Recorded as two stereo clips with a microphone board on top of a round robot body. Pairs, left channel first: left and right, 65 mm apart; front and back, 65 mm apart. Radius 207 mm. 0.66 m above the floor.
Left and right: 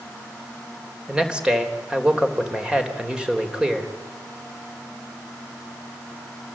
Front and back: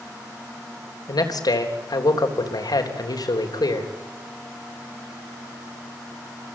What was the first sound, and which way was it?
A man speaking, 15° right.